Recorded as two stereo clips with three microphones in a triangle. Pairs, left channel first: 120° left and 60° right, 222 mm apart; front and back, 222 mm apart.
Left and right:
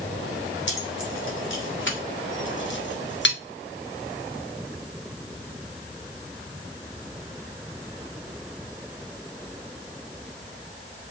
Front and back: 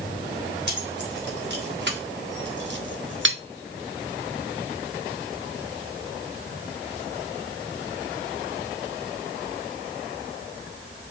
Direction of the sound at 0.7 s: 145° left.